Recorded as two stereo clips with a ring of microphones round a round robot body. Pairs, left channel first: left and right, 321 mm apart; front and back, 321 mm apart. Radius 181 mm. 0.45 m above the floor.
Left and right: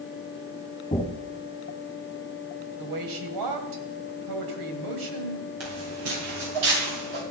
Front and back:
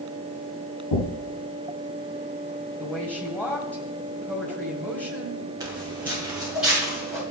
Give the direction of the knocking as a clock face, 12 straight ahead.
11 o'clock.